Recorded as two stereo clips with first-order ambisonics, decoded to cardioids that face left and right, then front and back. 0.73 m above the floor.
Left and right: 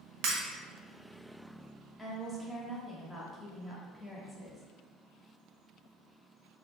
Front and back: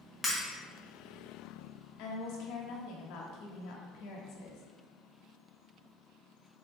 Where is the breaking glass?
80° right, 1.3 m.